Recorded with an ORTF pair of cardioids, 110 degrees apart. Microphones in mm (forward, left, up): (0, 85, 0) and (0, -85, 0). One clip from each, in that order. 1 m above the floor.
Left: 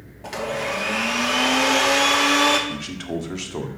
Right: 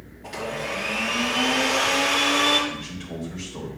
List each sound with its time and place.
0.2 s a blender: 45° left, 2.5 m
2.7 s a man speaking: 65° left, 1.7 m